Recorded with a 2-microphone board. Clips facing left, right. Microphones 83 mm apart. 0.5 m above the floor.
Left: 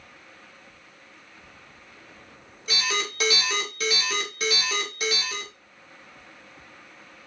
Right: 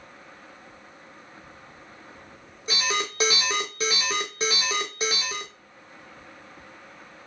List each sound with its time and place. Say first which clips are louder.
2.7 s an alarm: right 1 dB; 25° right (ahead or behind), 0.9 m